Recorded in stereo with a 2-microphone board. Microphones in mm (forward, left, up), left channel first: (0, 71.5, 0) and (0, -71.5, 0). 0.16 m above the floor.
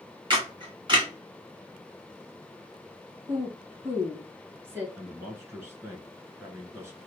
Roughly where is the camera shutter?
Right.